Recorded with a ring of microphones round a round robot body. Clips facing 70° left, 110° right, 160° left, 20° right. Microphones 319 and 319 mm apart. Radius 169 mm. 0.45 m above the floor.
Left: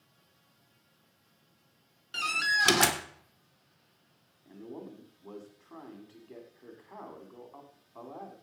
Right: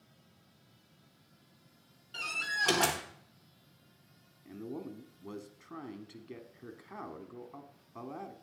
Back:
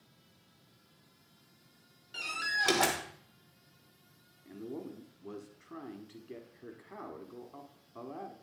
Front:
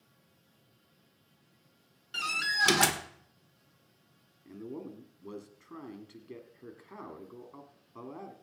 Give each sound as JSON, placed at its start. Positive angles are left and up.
{"t": 2.1, "sound": "a door slam", "azimuth_deg": 30, "distance_m": 1.3}
{"t": 4.5, "sound": "a man speaking", "azimuth_deg": -100, "distance_m": 1.5}